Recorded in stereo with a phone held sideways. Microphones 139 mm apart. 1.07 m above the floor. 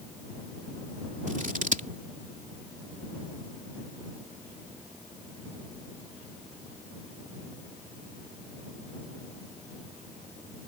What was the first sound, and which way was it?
Scissors, 65° right (ahead or behind).